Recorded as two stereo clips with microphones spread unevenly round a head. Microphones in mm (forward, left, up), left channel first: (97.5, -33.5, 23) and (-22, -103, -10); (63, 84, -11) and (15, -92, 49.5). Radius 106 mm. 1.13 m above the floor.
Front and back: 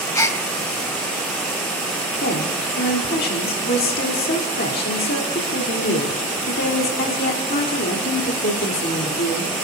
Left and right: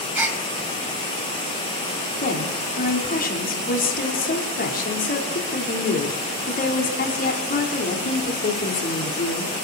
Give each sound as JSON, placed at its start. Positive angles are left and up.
{"t": 0.1, "sound": "a gasp", "azimuth_deg": -35, "distance_m": 2.5}
{"t": 2.2, "sound": "a woman speaking", "azimuth_deg": 35, "distance_m": 3.5}